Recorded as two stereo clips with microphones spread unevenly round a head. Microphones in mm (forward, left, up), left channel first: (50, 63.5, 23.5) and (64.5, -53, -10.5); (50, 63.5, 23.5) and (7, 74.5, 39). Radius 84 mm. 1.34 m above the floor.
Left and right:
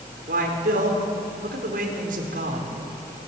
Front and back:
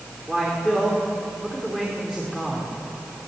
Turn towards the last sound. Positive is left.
turn(degrees=-105)